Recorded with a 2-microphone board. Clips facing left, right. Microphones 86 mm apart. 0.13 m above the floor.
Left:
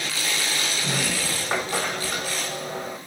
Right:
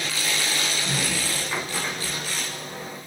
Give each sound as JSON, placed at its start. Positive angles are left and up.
{"t": 0.8, "sound": "a sliding door", "side_deg": 60, "distance_m": 5.5}